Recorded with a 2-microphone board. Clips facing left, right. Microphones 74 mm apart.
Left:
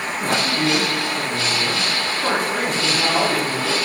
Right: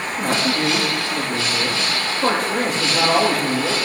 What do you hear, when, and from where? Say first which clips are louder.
0.2 s a man speaking: right 1 dB; 55° right (ahead or behind), 7 m